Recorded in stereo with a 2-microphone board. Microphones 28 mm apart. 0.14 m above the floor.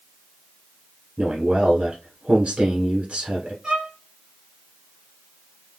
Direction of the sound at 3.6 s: 45° right (ahead or behind).